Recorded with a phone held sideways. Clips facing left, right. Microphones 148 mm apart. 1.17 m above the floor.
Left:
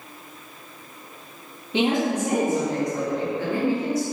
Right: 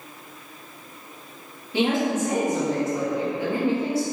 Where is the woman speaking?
20° left (ahead or behind), 1.6 m; by 4.0 s 30° right (ahead or behind), 1.5 m.